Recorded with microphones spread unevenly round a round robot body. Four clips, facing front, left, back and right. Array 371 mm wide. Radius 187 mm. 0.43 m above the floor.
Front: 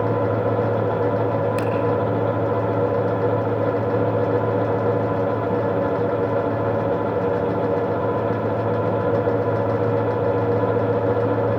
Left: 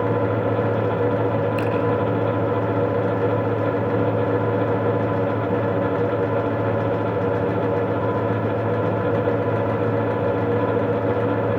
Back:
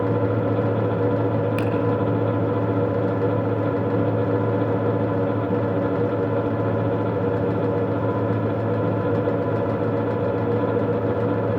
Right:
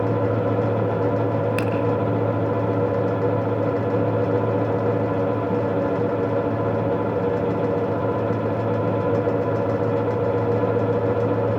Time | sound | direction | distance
1.6 | a finger snap | 125° right | 3 m